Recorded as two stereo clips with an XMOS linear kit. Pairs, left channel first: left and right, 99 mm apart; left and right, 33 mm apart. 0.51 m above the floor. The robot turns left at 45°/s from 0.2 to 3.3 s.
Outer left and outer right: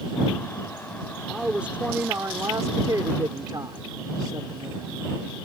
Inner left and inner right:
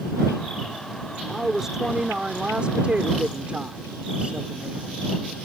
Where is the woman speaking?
5° right; by 5.1 s 95° right.